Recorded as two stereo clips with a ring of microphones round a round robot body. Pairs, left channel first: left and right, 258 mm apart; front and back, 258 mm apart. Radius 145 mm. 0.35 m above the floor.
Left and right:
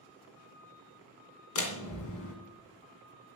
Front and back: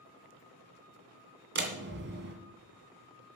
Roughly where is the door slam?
Behind left.